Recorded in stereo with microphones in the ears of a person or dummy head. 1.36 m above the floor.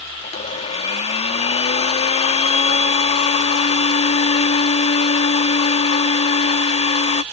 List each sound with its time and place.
0.2 s a blender: 35° left (ahead or behind)